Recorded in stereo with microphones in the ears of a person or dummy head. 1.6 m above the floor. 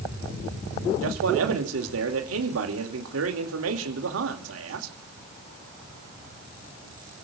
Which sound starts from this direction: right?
A man speaking, at 1.0 s.